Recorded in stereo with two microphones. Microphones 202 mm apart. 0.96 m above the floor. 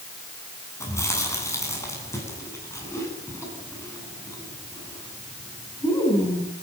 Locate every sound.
0.8 s chewing: 15° left (ahead or behind), 10 m